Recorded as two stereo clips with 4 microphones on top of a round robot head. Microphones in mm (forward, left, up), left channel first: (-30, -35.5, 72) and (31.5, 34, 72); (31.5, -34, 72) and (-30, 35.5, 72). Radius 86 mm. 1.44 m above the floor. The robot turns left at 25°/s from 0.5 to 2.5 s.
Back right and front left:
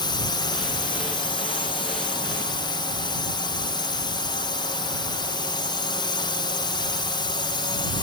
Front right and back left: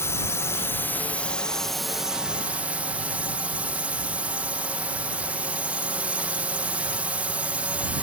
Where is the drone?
105° right; by 8.0 s 155° right.